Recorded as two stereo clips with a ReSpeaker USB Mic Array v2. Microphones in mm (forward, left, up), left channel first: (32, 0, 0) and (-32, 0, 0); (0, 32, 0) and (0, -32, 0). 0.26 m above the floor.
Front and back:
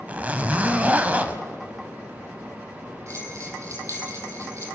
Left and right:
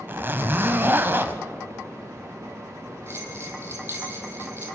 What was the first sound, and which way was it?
A zipper, 125° right.